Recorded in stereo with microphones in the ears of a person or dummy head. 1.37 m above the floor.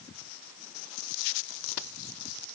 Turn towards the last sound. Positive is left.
No sound to turn to.